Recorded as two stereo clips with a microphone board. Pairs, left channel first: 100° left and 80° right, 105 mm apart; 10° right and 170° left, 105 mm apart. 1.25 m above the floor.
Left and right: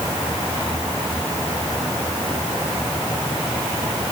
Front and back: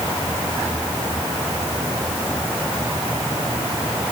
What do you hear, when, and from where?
Only background noise.